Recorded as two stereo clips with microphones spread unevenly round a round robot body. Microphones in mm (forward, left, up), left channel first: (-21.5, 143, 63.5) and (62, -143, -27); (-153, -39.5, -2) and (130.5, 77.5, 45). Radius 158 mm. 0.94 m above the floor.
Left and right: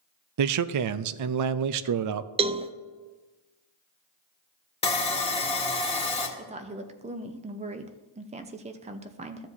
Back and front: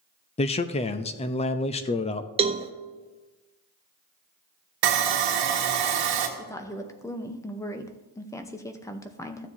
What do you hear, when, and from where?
0.4 s a man speaking: 90° right, 0.5 m
2.4 s a cowbell: 50° right, 0.5 m
4.8 s sawing: 25° left, 1.5 m
6.4 s a woman speaking: 95° right, 0.8 m